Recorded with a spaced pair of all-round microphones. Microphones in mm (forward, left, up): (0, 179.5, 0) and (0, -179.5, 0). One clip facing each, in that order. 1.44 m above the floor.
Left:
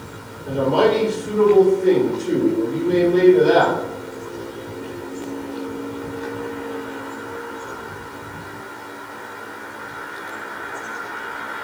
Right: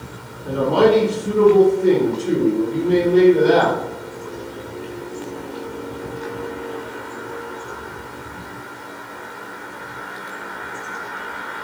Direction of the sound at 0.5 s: 65° right (ahead or behind).